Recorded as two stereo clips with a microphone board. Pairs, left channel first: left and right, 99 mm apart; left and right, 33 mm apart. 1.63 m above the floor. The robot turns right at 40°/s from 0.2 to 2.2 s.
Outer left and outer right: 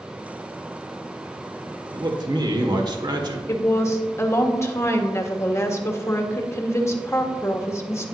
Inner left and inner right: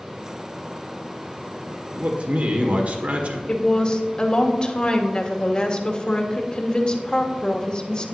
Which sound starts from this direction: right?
A man speaking, at 1.9 s.